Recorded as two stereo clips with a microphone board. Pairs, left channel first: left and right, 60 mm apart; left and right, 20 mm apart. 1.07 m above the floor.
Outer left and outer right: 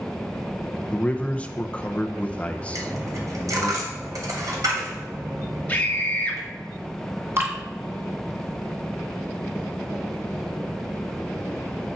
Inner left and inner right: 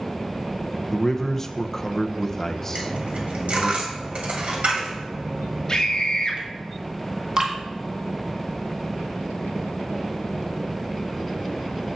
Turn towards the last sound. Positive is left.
turn(degrees=-40)  # may be behind; listen again after turning